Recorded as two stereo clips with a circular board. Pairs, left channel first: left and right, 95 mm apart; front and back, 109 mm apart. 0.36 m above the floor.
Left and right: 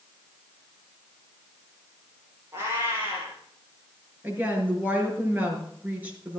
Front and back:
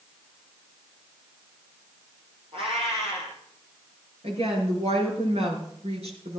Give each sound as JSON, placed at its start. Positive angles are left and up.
{"t": 2.5, "sound": "a cat meowing", "azimuth_deg": -155, "distance_m": 6.5}
{"t": 4.2, "sound": "a woman speaking", "azimuth_deg": -160, "distance_m": 5.5}